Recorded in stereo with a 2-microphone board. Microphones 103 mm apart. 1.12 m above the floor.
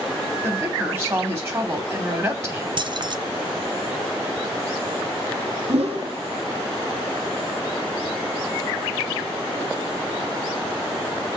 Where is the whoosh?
75° right (ahead or behind), 1.8 m.